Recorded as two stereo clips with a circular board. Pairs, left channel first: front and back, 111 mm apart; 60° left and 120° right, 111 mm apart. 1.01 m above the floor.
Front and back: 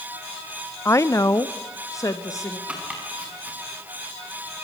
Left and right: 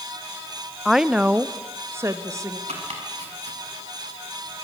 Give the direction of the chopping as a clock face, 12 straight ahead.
3 o'clock.